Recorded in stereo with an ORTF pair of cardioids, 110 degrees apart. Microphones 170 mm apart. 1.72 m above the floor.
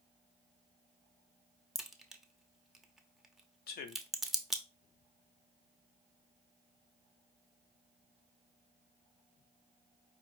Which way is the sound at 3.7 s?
65° left.